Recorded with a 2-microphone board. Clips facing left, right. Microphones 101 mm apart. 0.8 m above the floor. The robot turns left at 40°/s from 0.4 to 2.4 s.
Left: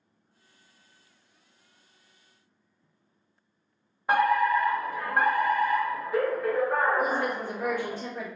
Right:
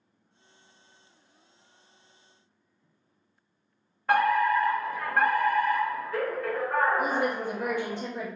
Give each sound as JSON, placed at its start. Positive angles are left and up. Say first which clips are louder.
{"t": 4.1, "sound": "a fire alarm", "louder": "even", "side_deg": 15, "distance_m": 1.4}
{"t": 7.0, "sound": "a woman speaking", "louder": "even", "side_deg": -20, "distance_m": 1.4}